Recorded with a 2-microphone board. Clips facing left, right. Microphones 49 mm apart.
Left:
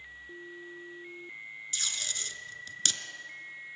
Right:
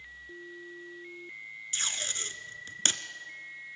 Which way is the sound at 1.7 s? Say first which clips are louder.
Right 3 dB; 35° right (ahead or behind).